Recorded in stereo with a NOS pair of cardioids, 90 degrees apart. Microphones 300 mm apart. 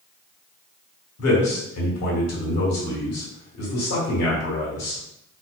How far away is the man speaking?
About 1.4 m.